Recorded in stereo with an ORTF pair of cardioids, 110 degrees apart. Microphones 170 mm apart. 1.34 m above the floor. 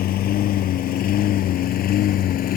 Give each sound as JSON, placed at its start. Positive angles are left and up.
{"t": 0.0, "sound": "a lawn mower", "azimuth_deg": 65}